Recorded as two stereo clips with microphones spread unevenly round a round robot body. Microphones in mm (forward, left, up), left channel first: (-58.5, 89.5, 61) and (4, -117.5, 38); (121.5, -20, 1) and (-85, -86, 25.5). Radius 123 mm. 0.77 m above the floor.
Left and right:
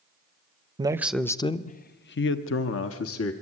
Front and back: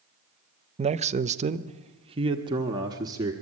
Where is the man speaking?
110° right, 0.7 m; by 3.3 s 120° left, 1.6 m.